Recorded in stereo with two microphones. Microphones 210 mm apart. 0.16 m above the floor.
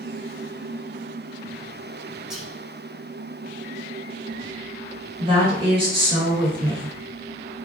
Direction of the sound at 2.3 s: 5° right (ahead or behind).